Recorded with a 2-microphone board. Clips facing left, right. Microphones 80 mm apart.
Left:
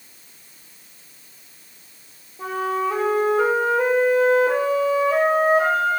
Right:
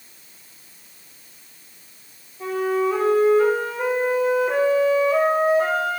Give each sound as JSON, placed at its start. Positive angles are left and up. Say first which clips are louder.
{"t": 2.4, "sound": "a flute", "louder": "right 2 dB", "side_deg": 75, "distance_m": 9.5}